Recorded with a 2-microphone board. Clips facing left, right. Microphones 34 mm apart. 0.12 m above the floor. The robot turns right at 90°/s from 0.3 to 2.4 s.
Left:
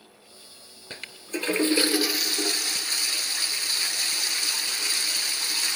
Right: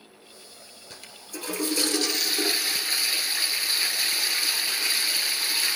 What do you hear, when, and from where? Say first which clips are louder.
0.9 s a toilet flushing: left 8 dB; 60° left, 1.1 m; by 5.8 s 165° right, 1.1 m